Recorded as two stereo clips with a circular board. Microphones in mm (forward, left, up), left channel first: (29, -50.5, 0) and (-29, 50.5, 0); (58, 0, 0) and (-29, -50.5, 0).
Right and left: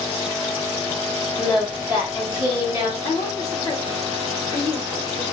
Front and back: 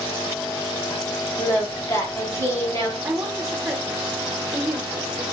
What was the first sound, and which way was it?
Singing, 70° left.